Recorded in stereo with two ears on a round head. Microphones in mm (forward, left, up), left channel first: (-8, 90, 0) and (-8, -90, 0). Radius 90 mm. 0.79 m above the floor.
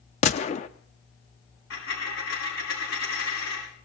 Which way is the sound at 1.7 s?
75° left (ahead or behind).